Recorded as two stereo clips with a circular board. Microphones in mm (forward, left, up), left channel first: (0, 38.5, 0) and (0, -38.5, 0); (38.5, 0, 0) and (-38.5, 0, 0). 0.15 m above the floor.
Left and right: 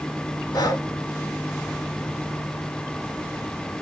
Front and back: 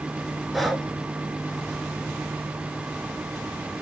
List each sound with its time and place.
0.5 s breathing: 90° left, 0.7 m